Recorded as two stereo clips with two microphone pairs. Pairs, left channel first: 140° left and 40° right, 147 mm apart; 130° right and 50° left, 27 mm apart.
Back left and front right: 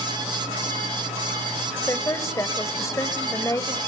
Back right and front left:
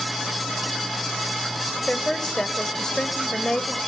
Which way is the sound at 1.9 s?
170° right.